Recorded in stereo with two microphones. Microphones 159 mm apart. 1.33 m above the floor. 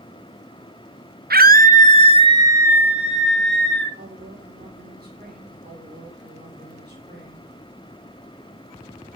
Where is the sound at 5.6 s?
75° right (ahead or behind), 4.5 m.